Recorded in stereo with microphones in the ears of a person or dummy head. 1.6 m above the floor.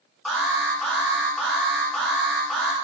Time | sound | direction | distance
0.2 | an alarm | 5° left (ahead or behind) | 1.3 m